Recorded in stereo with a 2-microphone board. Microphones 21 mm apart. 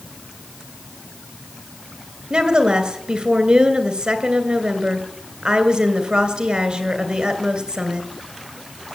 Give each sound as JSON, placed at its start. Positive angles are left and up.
{"t": 2.3, "sound": "a woman speaking", "side_deg": -55, "distance_m": 2.5}